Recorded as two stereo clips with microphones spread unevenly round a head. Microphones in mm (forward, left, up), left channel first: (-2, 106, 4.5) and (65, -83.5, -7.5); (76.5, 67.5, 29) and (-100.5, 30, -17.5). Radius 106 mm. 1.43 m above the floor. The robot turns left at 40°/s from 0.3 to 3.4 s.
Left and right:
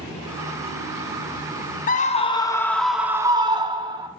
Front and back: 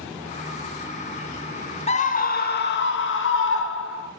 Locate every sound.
1.9 s a scream: 60° left, 1.0 m; by 4.1 s straight ahead, 1.0 m